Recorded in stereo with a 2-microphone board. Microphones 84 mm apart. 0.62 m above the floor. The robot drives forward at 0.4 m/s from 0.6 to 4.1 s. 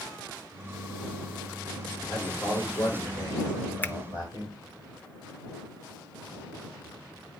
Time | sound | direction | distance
2.1 | a man speaking | 55° left (ahead or behind) | 2.5 m
3.8 | a finger snap | 20° left (ahead or behind) | 0.6 m